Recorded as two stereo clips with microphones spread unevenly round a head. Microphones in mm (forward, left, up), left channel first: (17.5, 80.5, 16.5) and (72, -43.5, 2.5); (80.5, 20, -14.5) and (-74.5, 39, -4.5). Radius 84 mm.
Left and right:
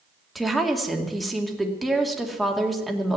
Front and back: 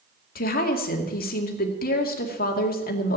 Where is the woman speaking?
25° left, 2 m.